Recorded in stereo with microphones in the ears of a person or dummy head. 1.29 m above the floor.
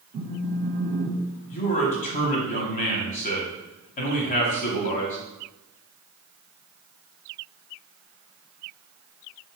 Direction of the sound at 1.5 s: 40° left (ahead or behind).